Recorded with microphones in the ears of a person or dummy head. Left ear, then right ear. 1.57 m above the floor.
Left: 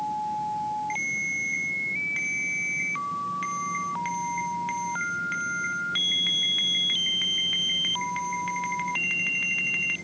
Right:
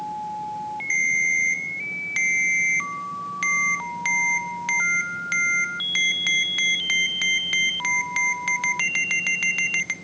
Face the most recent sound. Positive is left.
turn(degrees=-40)  # may be behind; listen again after turning